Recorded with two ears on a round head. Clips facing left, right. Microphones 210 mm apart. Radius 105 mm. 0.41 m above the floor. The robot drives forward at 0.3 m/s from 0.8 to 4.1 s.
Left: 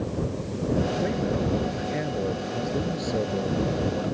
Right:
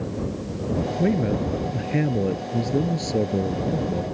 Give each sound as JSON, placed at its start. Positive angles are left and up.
{"t": 1.0, "sound": "a man speaking", "side_deg": -50}